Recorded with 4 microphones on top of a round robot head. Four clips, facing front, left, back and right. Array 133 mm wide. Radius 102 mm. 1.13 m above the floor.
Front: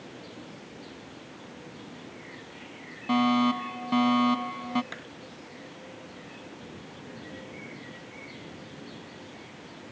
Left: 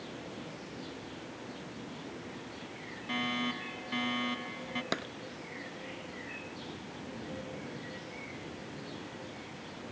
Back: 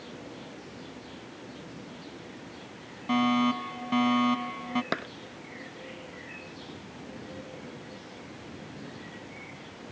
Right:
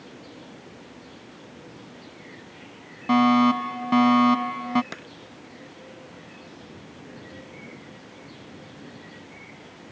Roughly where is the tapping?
Behind.